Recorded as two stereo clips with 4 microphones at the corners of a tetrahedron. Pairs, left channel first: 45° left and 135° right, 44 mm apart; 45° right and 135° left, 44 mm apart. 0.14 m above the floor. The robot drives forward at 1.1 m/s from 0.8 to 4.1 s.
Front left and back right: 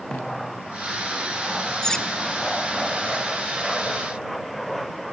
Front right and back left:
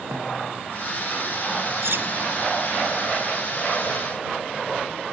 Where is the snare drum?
120° left, 6.5 m.